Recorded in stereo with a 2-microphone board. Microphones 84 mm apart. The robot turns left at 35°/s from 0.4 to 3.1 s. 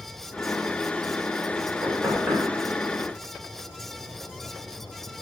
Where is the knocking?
40° right (ahead or behind), 1.2 m; by 5.2 s 5° right (ahead or behind), 1.2 m.